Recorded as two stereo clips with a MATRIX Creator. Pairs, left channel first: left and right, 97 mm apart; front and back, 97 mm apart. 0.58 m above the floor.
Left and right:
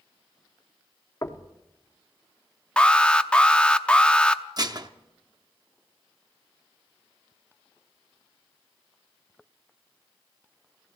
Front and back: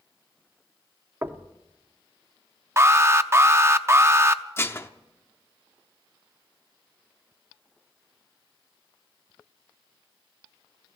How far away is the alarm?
About 0.6 m.